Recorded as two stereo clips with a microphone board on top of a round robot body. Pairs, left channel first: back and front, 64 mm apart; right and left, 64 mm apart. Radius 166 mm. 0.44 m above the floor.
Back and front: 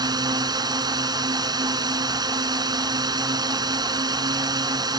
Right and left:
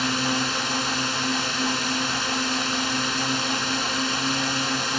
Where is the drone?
Straight ahead.